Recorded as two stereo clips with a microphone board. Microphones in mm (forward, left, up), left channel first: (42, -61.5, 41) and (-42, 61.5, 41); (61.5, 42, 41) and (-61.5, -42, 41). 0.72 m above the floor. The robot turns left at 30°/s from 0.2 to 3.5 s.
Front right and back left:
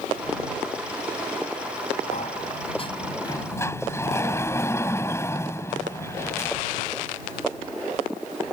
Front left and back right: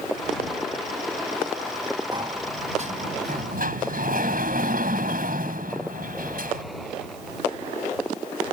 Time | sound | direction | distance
2.1 | a sliding door | 85° right | ?